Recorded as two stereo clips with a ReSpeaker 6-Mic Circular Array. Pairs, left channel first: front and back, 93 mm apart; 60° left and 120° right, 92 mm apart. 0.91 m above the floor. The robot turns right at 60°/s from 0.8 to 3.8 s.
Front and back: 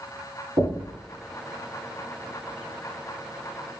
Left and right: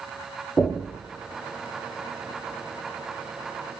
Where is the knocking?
155° left, 1.1 m; by 0.9 s 165° left, 1.1 m.